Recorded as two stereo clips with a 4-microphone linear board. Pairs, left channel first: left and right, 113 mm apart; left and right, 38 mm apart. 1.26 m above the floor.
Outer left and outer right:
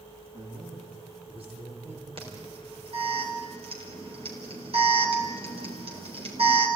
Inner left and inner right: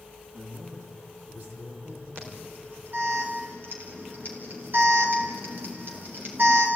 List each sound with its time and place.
0.3 s a man speaking: 65° right (ahead or behind), 3 m
2.2 s an alarm: 60° right (ahead or behind), 4 m